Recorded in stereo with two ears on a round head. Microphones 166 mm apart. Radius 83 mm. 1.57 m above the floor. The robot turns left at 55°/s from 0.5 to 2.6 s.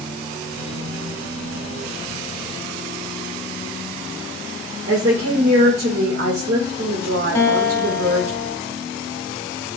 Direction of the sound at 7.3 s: 15° left (ahead or behind).